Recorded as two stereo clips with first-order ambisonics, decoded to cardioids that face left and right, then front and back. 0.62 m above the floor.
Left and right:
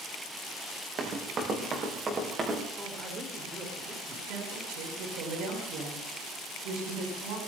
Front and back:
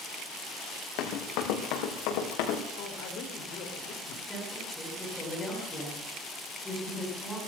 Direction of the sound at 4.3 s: 85° right.